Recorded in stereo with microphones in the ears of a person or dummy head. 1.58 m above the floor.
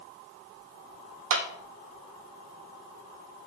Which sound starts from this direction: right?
A clap, at 1.3 s.